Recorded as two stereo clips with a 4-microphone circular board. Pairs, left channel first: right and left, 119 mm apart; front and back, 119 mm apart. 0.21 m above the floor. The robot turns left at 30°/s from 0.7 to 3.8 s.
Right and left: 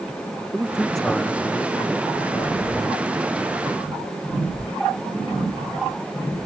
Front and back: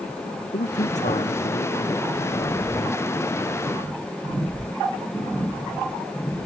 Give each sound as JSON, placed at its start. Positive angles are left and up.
{"t": 0.5, "sound": "a man speaking", "azimuth_deg": 5}